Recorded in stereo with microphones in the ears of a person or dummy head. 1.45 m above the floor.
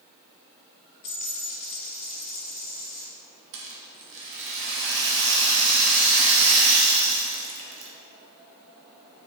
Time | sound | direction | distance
1.0 | a dropped coin | 30° left (ahead or behind) | 0.9 m
3.5 | a rattle | 65° right (ahead or behind) | 1.2 m